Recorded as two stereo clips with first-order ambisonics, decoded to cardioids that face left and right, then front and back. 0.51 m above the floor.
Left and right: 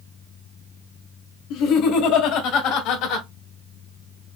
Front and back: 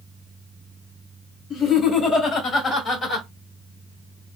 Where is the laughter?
60° left, 3 m; by 3.3 s 80° left, 2 m.